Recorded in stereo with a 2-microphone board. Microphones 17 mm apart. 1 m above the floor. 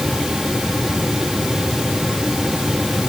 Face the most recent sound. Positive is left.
No sound to turn to.